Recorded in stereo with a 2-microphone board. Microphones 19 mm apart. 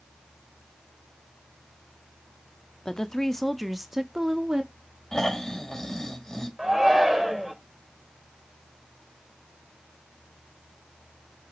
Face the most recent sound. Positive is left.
turn(degrees=-20)  # may be behind; listen again after turning